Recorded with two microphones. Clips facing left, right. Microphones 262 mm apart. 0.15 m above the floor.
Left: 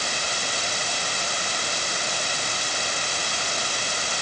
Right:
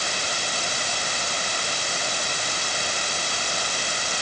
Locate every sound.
Only background noise.